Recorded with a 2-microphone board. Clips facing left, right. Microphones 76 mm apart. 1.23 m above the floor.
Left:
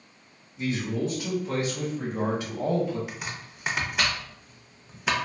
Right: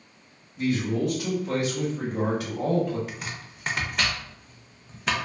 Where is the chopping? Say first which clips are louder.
Even; 5° left (ahead or behind), 0.5 m.